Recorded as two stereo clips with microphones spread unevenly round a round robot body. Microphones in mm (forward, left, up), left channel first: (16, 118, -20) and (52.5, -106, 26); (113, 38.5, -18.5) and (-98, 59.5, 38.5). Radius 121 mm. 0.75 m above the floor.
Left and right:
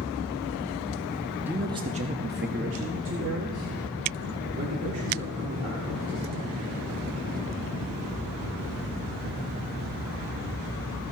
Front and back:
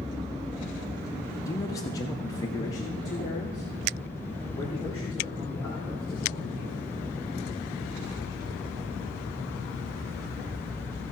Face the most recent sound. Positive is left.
turn(degrees=-80)